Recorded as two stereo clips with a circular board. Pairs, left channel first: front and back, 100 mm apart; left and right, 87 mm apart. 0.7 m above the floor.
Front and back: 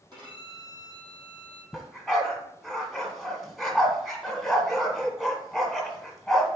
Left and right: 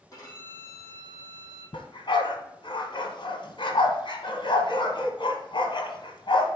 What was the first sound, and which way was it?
A violin, 140° left.